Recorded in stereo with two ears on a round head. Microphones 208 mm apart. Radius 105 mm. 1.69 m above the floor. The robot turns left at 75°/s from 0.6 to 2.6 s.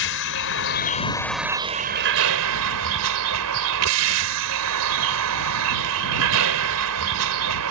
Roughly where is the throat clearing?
I don't hear throat clearing.